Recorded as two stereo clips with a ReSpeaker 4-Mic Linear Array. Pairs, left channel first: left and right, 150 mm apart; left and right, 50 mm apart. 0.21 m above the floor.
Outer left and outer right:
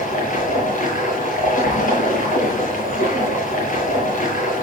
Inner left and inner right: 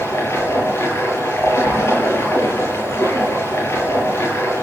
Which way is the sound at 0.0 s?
70° left (ahead or behind).